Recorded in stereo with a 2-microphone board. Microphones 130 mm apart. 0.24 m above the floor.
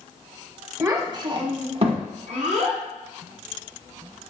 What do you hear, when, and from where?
0.8 s a child speaking: 20° right (ahead or behind), 0.8 m; by 2.8 s 65° right (ahead or behind), 1.4 m